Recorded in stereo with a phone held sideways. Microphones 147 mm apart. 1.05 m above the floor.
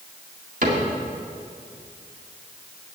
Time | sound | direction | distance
0.6 | a cupboard door | 70° right (ahead or behind) | 2 m